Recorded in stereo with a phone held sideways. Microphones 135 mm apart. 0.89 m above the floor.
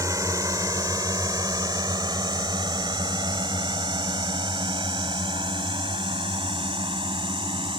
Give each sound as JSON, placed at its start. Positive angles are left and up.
{"t": 0.0, "sound": "a drone", "side_deg": -25}